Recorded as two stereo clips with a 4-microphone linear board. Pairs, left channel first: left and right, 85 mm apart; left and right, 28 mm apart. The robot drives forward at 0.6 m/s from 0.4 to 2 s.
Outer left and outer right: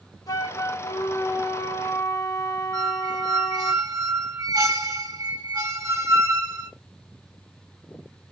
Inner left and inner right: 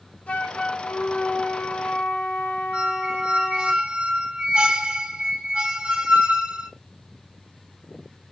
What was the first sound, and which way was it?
A flute, 45° left (ahead or behind).